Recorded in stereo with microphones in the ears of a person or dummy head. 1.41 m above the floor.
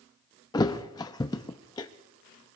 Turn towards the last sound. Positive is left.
turn(degrees=20)  # may be behind; listen again after turning